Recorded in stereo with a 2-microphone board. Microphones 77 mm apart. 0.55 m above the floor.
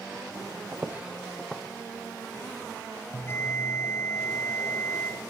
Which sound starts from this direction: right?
Footsteps, at 0.7 s.